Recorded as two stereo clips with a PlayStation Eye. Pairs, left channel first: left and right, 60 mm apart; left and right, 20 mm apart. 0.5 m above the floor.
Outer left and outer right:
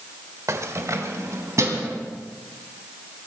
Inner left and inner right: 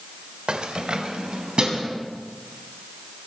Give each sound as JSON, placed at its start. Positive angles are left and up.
{"t": 0.5, "sound": "keys jangling", "side_deg": -55, "distance_m": 1.2}